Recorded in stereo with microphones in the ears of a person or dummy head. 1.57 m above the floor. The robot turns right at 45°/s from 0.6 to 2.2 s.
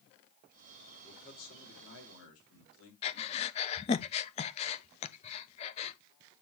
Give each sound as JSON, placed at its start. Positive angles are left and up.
{"t": 1.0, "sound": "a man speaking", "azimuth_deg": 25, "distance_m": 3.5}
{"t": 3.0, "sound": "breathing", "side_deg": 25, "distance_m": 0.6}